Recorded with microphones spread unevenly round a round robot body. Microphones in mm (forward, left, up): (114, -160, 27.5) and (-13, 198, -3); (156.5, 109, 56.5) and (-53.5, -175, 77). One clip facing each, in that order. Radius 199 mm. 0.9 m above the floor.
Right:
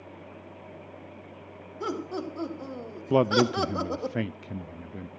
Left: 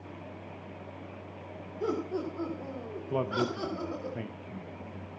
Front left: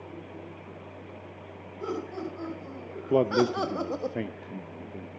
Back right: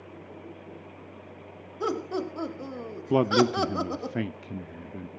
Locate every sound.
1.8 s laughter: 130° right, 3.5 m; by 4.1 s 65° right, 1.7 m
3.1 s a man speaking: 60° right, 0.6 m